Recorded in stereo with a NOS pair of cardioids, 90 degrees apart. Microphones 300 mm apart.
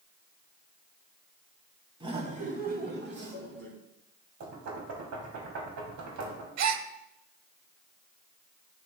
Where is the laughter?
15° right, 2 m; by 3.7 s 45° right, 4 m.